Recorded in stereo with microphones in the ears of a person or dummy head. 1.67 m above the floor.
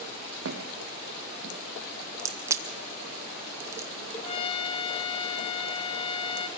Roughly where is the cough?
No cough in this recording.